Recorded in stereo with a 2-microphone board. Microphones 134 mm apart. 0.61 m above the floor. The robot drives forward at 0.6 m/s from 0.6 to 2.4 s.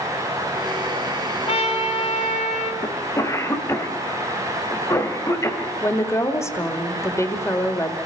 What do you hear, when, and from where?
1.5 s a trumpet: 50° left (ahead or behind), 3 m; by 2.7 s 60° left (ahead or behind), 3 m
2.8 s a cough: 25° left (ahead or behind), 2.5 m
5.8 s a woman speaking: 20° left (ahead or behind), 2 m